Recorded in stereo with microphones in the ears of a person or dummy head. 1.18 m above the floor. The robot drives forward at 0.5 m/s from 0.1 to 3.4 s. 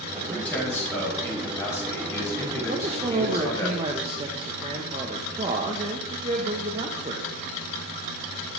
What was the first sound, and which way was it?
A man speaking, 10° left (ahead or behind).